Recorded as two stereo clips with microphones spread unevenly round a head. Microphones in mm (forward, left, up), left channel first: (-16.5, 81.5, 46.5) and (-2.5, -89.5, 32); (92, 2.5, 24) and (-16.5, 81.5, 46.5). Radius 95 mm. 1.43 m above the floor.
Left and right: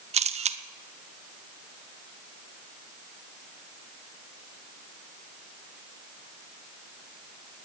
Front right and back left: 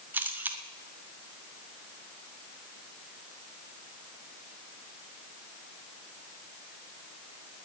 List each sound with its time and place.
0.1 s a camera shutter: 135° right, 0.9 m